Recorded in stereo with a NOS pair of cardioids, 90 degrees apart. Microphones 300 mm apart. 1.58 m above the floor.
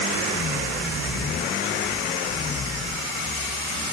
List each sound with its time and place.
Only background noise.